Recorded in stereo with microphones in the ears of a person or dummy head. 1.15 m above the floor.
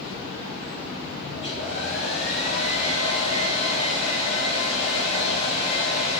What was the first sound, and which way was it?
A hair dryer, 30° left (ahead or behind).